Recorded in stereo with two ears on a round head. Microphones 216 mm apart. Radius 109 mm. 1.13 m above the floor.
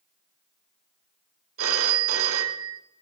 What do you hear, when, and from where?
1.6 s a phone ringing: 60° right (ahead or behind), 1.5 m